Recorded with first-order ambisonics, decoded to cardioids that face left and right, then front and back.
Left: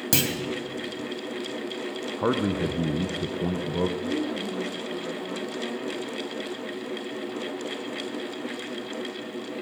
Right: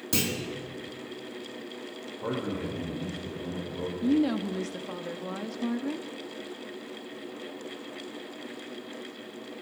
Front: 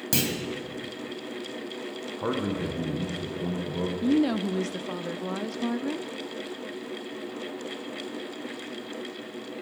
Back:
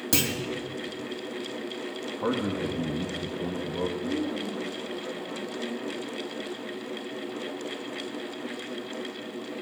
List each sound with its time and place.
0.1 s a clunk: 90° left, 1.4 m
2.2 s a man speaking: 90° left, 0.8 m
4.0 s a woman speaking: 25° right, 0.5 m